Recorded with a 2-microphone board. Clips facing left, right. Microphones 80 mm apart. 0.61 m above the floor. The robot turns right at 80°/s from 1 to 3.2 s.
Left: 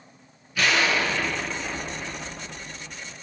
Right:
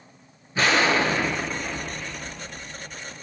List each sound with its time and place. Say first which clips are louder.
0.6 s an explosion: right 2 dB; 50° right, 0.8 m; by 3.1 s 120° left, 0.8 m